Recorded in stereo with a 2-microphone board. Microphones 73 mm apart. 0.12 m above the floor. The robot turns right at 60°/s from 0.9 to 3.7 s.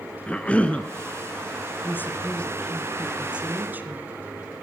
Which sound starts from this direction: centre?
A cough, at 0.3 s.